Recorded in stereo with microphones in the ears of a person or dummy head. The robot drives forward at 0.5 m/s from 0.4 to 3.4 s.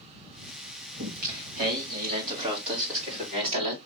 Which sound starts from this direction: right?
Singing, at 1.0 s.